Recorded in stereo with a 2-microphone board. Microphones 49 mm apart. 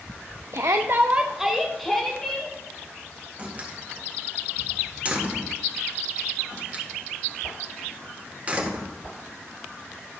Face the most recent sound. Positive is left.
turn(degrees=-30)  # may be behind; listen again after turning